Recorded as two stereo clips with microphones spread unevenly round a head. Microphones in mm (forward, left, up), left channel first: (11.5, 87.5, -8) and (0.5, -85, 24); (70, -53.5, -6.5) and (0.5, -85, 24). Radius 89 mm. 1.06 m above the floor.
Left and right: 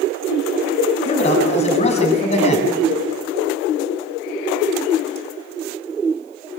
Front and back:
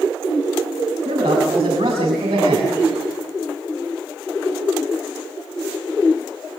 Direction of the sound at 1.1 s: 145° left.